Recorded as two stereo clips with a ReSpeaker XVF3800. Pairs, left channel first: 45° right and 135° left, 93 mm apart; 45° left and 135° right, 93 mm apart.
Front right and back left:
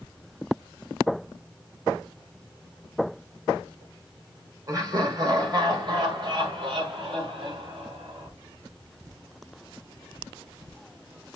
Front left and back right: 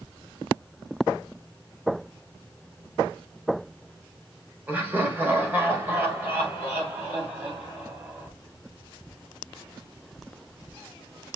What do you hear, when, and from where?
4.7 s laughter: 160° left, 1.7 m; by 8.3 s 165° left, 3.5 m